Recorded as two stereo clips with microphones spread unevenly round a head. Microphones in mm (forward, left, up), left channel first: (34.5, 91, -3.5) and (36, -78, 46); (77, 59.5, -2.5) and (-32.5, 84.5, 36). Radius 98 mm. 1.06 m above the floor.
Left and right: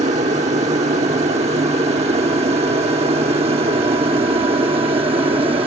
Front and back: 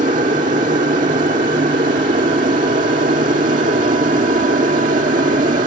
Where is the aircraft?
150° right; by 5.7 s 155° right.